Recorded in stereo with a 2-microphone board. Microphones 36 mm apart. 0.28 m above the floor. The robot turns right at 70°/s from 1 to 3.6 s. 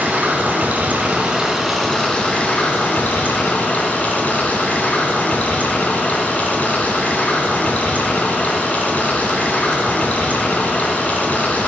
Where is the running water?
55° right, 1.6 m; by 11.7 s 130° left, 1.6 m.